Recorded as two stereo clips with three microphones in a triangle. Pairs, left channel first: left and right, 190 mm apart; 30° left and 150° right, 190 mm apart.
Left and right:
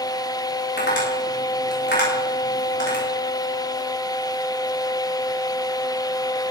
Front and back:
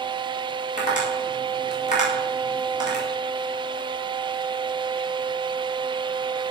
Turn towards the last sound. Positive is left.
turn(degrees=80)